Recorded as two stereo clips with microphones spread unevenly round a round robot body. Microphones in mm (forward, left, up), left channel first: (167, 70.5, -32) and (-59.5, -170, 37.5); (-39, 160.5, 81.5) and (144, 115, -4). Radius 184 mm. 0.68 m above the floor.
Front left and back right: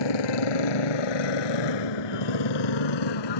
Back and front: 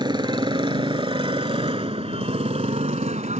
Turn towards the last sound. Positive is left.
turn(degrees=45)